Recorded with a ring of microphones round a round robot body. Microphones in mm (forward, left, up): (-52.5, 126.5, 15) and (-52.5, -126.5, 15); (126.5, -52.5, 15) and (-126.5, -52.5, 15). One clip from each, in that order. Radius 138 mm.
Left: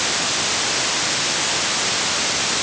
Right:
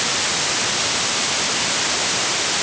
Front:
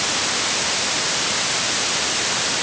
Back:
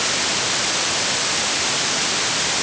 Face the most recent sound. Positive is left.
No sound to turn to.